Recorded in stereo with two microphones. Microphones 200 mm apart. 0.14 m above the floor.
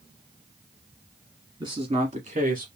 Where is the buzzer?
I don't hear a buzzer.